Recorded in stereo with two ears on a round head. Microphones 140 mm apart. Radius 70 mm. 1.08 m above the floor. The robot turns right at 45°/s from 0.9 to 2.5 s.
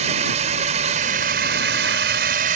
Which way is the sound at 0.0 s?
130° right.